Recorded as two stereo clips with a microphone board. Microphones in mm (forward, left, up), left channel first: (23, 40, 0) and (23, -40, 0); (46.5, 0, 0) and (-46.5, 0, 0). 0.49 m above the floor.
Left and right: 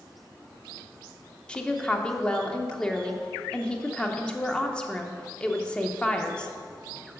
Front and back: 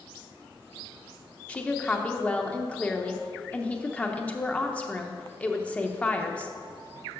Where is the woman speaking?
40° left, 0.7 m.